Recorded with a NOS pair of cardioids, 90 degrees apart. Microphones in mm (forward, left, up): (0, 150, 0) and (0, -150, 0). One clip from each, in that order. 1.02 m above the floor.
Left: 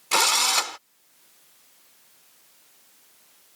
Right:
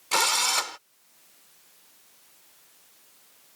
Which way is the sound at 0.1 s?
15° left.